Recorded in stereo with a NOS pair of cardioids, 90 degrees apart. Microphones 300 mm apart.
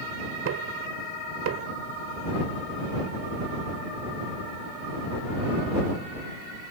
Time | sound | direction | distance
0.5 | knocking | 55° right | ?